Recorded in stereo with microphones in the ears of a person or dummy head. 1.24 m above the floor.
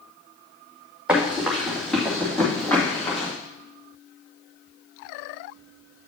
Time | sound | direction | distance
1.1 | running footsteps | 5° right (ahead or behind) | 2.5 m